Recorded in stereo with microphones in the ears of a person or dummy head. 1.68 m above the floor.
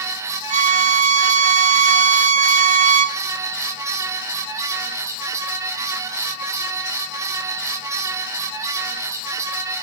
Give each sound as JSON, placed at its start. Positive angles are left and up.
{"t": 0.5, "sound": "a violin", "side_deg": -40, "distance_m": 1.2}